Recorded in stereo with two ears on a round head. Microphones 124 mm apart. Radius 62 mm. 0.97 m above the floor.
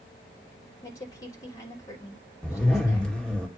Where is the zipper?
5° left (ahead or behind), 2 m.